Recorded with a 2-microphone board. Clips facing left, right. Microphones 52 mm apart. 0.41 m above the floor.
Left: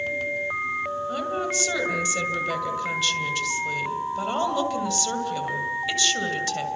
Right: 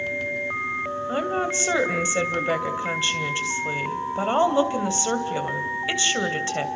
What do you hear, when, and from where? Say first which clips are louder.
1.1 s a woman speaking: right 6 dB; 30° right (ahead or behind), 2.5 m